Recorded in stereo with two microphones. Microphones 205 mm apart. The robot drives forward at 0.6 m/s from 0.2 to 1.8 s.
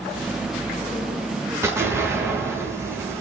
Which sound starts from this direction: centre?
An explosion, at 1.6 s.